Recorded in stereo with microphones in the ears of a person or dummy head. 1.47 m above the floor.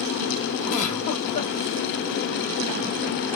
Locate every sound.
0.7 s a giggle: 40° left (ahead or behind), 2.5 m